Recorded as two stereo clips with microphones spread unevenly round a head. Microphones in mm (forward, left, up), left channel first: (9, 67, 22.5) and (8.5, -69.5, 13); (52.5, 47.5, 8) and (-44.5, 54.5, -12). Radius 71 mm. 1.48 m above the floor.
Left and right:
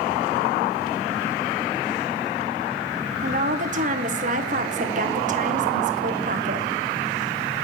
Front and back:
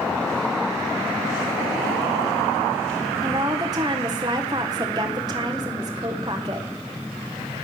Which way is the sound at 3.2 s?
125° right.